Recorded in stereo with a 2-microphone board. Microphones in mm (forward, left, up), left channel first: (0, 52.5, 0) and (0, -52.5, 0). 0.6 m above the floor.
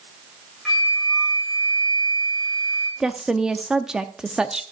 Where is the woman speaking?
5° right (ahead or behind), 0.6 m.